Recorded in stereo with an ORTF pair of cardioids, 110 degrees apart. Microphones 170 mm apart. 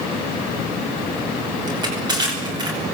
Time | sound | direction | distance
1.7 | crushing | 25° right | 9.5 m